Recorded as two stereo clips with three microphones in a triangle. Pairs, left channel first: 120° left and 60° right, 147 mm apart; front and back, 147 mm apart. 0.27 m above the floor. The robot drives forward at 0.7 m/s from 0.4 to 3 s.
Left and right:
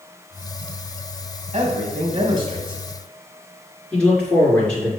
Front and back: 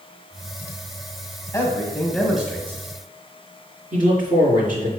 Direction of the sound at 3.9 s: 160° right.